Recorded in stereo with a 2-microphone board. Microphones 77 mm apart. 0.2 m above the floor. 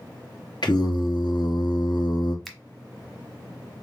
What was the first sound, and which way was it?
Singing, 65° left (ahead or behind).